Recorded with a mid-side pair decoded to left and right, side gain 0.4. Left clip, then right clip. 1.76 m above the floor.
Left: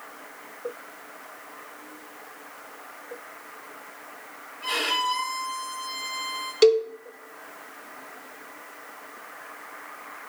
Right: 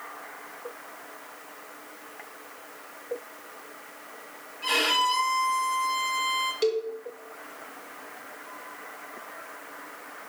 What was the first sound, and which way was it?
A violin, 35° right.